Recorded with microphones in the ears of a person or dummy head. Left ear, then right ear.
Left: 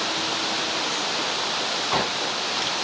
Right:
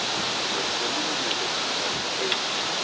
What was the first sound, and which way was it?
Only background noise.